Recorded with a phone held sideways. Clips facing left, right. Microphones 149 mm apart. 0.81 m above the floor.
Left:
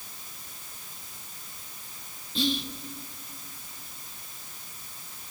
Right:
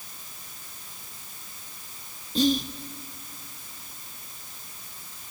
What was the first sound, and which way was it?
Whispering, 45° right (ahead or behind).